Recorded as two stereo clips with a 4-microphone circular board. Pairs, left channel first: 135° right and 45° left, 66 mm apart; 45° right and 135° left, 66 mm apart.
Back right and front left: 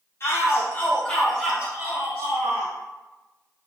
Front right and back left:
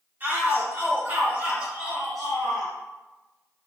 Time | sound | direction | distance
0.2 | a shout | 170° right | 1.8 m